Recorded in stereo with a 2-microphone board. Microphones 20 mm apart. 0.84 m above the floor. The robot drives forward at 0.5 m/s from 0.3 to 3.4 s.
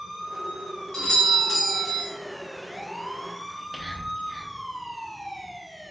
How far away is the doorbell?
About 0.8 m.